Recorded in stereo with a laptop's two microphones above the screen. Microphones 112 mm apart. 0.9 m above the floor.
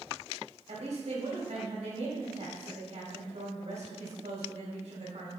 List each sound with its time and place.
0.7 s a woman speaking: 65° right (ahead or behind), 3 m